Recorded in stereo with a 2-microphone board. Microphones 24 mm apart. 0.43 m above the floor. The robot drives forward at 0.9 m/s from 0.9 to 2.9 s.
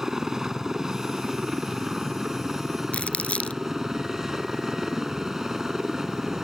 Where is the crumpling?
65° left (ahead or behind).